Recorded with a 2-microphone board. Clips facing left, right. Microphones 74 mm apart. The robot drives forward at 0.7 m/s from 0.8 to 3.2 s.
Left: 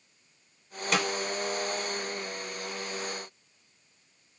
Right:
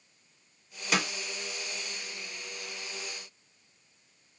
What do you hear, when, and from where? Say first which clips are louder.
0.9 s a snare drum: left 2 dB; 5° right (ahead or behind), 1.2 m